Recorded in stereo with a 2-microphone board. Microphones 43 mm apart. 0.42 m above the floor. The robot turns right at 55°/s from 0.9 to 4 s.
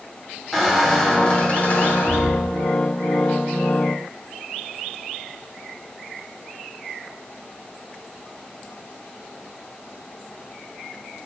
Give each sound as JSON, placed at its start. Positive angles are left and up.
{"t": 0.5, "sound": "a squeak", "azimuth_deg": 5, "distance_m": 1.7}